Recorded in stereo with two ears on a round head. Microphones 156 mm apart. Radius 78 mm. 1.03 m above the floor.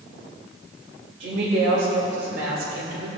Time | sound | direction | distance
1.2 | a woman speaking | 60° right (ahead or behind) | 4 m